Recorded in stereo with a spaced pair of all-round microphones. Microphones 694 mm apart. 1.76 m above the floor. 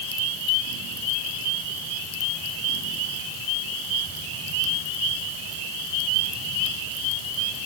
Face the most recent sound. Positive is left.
No sound to turn to.